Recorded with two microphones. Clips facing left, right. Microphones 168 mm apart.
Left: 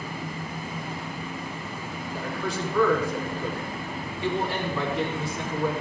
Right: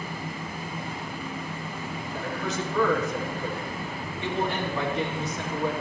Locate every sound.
2.1 s a man speaking: 20° right (ahead or behind), 4.5 m